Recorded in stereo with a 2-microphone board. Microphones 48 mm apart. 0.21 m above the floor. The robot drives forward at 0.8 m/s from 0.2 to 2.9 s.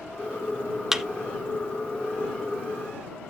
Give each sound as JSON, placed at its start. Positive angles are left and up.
{"t": 0.9, "sound": "a thud", "side_deg": -10, "distance_m": 0.7}